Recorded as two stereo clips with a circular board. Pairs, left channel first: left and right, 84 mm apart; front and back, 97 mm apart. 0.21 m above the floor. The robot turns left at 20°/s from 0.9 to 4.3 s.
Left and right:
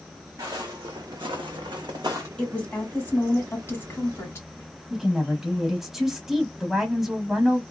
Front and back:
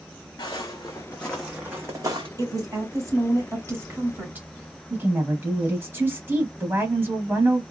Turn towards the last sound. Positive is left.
turn(degrees=-170)